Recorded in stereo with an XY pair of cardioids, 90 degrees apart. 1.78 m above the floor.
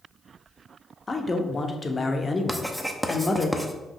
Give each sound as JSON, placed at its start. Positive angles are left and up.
{"t": 1.1, "sound": "a man speaking", "azimuth_deg": 30, "distance_m": 0.7}
{"t": 2.5, "sound": "writing", "azimuth_deg": -10, "distance_m": 0.6}